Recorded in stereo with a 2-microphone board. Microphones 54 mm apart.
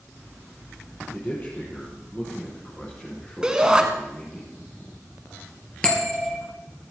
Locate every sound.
1.1 s a man speaking: 35° left (ahead or behind), 4 m; by 4.4 s 20° left (ahead or behind), 5.5 m
3.4 s a shout: 15° right (ahead or behind), 1.3 m
5.8 s a bell: 15° left (ahead or behind), 3.5 m